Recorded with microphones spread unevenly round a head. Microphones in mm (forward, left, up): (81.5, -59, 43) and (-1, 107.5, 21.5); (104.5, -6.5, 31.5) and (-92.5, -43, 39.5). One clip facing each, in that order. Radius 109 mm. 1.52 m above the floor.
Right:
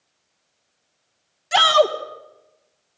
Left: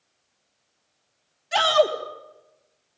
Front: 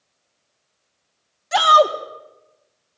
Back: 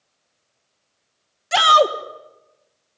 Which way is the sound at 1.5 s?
110° right.